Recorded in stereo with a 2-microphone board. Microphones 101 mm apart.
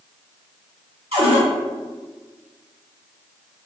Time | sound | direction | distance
1.1 | a cupboard door | 70° right (ahead or behind) | 3 m